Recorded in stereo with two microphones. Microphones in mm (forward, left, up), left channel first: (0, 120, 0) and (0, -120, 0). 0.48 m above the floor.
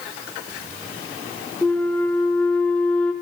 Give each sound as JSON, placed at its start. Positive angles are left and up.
{"t": 1.6, "sound": "a flute", "side_deg": 5, "distance_m": 0.5}